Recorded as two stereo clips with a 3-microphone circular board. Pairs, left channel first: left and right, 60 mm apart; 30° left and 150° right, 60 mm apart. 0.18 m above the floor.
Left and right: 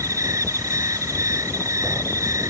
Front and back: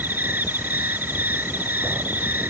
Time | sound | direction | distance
0.0 | an insect | 95° right | ?